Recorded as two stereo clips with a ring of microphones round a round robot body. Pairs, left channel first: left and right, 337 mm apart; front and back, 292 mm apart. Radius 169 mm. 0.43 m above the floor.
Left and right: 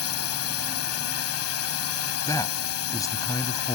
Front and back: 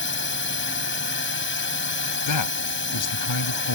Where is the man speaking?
10° left.